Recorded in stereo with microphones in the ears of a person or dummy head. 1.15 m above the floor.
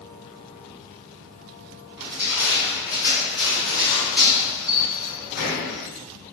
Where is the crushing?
15° right (ahead or behind), 1.7 m.